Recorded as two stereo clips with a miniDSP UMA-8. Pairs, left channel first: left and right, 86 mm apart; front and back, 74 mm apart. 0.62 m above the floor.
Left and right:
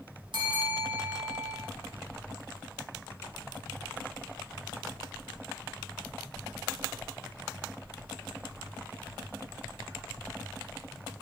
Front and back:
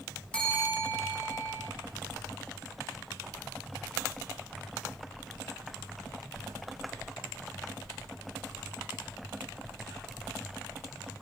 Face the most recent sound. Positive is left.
turn(degrees=-75)